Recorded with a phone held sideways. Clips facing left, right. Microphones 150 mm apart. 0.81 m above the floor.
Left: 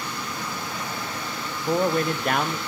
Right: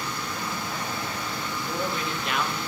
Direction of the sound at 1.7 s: 50° left (ahead or behind).